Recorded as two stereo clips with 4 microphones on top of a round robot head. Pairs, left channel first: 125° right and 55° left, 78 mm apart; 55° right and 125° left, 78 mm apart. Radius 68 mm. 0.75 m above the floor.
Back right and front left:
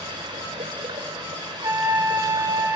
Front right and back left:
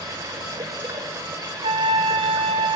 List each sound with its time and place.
0.0 s running water: 75° left, 3.5 m
1.6 s a trumpet: 110° left, 2 m